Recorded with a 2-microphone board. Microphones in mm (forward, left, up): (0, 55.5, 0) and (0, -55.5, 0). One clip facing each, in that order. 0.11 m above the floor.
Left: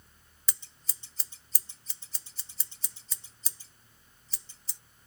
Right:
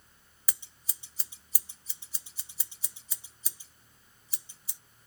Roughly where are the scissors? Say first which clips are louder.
Left 1 dB; centre.